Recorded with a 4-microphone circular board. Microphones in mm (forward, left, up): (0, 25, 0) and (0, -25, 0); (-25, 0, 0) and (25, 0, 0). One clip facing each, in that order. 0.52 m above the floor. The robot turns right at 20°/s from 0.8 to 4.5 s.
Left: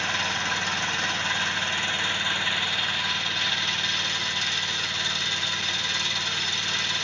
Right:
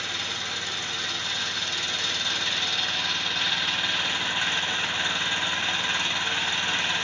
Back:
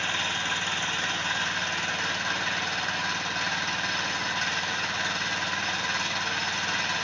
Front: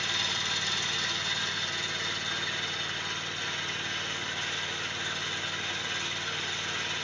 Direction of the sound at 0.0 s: 130° left.